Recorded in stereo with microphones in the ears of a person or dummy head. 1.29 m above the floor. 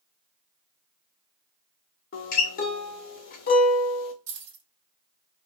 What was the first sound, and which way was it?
A guitar, 45° left (ahead or behind).